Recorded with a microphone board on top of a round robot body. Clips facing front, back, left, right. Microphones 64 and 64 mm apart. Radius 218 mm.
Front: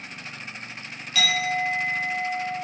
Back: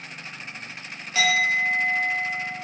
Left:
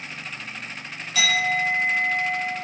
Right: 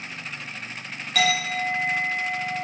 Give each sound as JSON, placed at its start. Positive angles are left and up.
{"t": 1.1, "sound": "a clink", "azimuth_deg": -120, "distance_m": 1.0}